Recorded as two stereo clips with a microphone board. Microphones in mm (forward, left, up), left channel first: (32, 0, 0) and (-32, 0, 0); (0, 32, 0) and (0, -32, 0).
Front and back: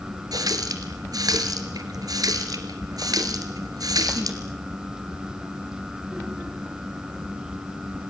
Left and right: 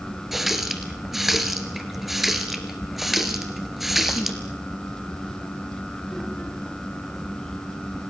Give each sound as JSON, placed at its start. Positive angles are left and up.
{"t": 0.3, "sound": "a running tap", "azimuth_deg": -175, "distance_m": 3.0}